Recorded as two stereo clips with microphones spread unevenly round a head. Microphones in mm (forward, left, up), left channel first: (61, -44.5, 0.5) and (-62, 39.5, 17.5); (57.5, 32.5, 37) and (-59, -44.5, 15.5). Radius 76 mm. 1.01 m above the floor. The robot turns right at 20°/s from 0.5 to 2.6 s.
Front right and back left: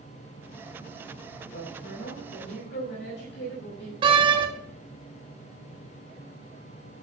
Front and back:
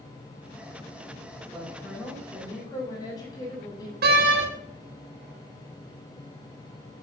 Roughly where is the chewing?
I don't hear chewing.